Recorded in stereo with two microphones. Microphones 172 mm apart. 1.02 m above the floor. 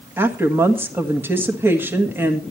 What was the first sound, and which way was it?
A woman speaking, 15° right (ahead or behind).